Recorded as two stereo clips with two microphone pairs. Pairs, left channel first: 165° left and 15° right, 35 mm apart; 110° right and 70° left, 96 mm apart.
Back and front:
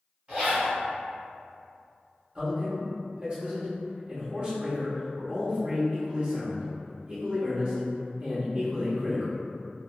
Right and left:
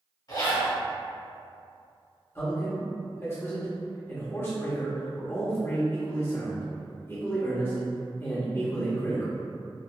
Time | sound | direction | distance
0.3 | a zipper | 75° right | 2.0 m
2.4 | a man speaking | 60° right | 1.0 m